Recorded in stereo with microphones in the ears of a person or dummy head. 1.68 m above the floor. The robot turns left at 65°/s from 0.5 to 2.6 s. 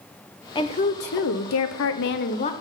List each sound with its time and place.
0.6 s a woman speaking: 160° left, 0.9 m; by 2.5 s 30° left, 0.9 m